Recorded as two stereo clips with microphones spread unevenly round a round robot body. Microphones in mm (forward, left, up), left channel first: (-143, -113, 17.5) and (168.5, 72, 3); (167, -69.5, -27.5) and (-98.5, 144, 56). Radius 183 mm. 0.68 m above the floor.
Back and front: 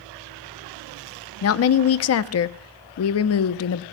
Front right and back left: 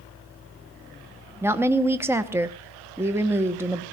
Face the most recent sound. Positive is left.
turn(degrees=-120)